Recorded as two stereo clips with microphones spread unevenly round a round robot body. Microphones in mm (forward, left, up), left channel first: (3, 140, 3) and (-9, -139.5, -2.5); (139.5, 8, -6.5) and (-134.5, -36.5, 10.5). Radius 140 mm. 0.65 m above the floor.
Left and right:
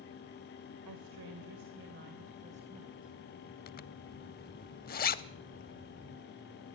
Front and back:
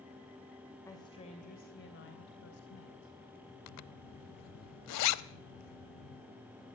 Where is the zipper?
35° left, 0.6 m.